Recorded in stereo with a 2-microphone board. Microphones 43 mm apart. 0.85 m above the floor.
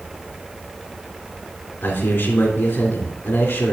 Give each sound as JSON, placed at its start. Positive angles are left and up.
{"t": 1.8, "sound": "a man speaking", "side_deg": 60, "distance_m": 3.0}